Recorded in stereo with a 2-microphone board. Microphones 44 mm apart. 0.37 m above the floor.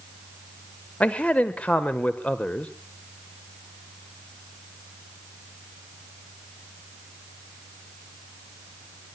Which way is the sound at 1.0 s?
30° left (ahead or behind).